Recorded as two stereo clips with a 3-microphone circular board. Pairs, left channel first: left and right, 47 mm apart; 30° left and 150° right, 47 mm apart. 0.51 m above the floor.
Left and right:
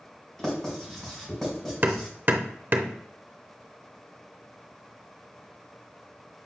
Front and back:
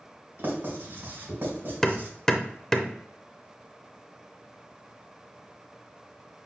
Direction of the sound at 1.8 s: 45° right.